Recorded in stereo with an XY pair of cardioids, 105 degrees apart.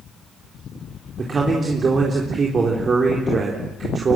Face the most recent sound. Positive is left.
turn(degrees=-40)